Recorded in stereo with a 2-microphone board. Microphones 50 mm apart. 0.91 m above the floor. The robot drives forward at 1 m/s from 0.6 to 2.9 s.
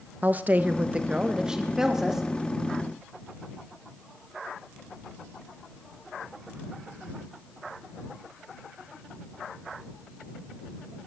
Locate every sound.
0.2 s a woman speaking: 35° right (ahead or behind), 0.6 m; by 2.2 s 10° right (ahead or behind), 2.0 m